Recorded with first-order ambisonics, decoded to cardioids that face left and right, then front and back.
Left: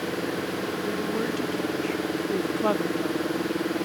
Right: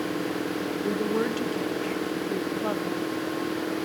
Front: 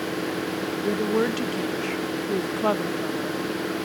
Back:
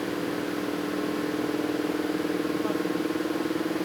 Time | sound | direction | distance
0.8 | a woman speaking | 25° right | ?